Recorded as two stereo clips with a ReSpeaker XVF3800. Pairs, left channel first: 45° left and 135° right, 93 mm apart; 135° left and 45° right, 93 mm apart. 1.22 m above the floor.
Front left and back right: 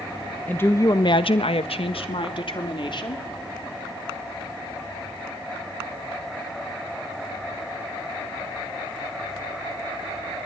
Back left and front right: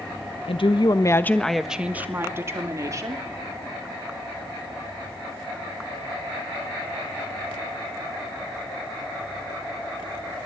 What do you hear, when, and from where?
0.5 s a woman speaking: 120° left, 1.4 m; by 3.2 s 10° left, 3.5 m